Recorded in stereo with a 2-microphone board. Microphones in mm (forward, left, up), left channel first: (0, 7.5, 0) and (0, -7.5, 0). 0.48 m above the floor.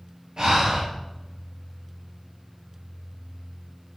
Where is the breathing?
55° right (ahead or behind), 5.5 m.